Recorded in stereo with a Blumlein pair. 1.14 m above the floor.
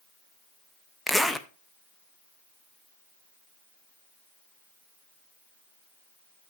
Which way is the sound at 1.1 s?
Straight ahead.